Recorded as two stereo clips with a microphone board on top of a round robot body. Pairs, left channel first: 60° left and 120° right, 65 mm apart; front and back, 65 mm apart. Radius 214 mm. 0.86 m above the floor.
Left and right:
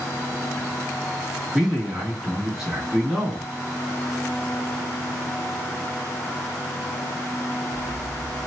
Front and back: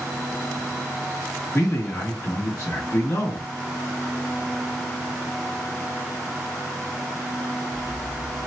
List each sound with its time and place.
1.5 s a man speaking: 40° right, 1.8 m